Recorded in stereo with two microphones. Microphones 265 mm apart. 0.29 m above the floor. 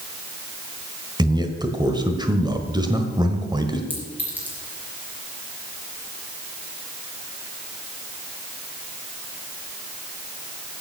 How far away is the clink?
About 4 m.